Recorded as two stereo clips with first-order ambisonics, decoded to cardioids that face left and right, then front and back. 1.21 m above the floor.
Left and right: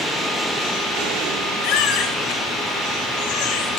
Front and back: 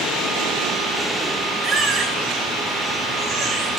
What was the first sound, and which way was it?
A baby crying, 100° left.